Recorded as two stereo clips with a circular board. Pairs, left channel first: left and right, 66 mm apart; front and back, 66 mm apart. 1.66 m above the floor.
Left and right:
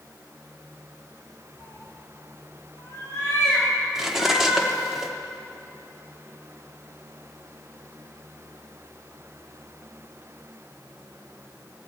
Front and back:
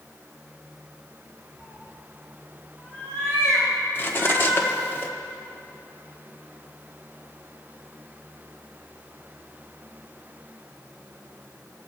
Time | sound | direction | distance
1.6 | a cat meowing | 115° left | 2.5 m
4.0 | cutlery clinking | 15° right | 0.8 m